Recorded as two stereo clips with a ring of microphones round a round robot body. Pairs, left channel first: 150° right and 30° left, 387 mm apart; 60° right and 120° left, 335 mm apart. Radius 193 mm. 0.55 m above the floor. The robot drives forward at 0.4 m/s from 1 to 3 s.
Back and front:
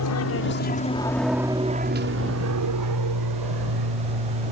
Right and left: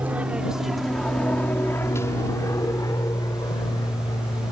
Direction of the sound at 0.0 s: 155° right.